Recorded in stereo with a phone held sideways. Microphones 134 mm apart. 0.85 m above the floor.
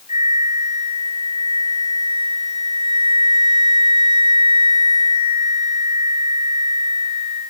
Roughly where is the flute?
Left.